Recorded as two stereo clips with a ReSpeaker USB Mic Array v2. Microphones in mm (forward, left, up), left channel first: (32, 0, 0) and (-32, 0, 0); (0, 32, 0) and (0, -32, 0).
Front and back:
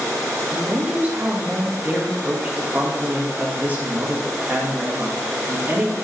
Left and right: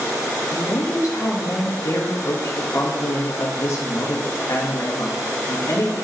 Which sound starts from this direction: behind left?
A woman speaking, at 0.5 s.